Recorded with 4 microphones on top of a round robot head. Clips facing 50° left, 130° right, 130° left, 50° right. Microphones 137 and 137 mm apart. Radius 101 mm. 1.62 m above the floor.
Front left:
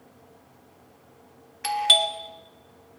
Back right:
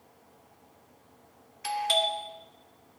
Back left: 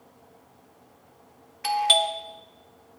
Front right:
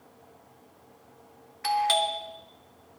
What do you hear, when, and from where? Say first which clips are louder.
1.6 s a doorbell: front left 3 dB, back left 1 dB; 60° left, 0.9 m